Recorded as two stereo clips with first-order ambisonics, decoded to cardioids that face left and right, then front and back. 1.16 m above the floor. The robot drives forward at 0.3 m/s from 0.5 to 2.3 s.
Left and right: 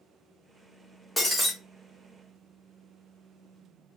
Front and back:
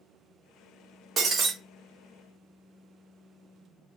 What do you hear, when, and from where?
1.2 s breaking glass: 170° left, 0.9 m; by 1.5 s 175° left, 0.9 m